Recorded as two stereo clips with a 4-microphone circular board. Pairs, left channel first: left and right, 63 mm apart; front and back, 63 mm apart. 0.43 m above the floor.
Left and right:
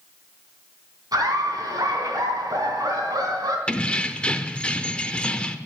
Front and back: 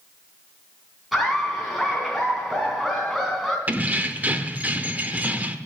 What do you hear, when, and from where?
1.1 s laughter: 90° right, 3.5 m
3.7 s keys jangling: 145° left, 0.8 m